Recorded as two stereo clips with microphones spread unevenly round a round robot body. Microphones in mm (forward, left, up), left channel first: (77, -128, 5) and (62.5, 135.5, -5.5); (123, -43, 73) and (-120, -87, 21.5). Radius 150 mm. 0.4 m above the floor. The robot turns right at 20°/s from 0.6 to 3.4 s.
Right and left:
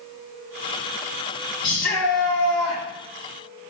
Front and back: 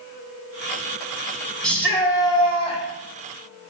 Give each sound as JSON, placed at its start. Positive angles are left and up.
{"t": 1.6, "sound": "a shout", "azimuth_deg": -85, "distance_m": 2.5}